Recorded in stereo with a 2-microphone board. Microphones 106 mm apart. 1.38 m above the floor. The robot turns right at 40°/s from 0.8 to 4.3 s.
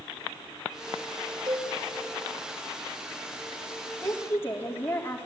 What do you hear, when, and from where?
1.5 s a cowbell: 40° right (ahead or behind), 5 m; by 1.7 s 50° right (ahead or behind), 5 m
4.0 s a woman speaking: 10° left (ahead or behind), 3.5 m; by 5.3 s 20° left (ahead or behind), 3.5 m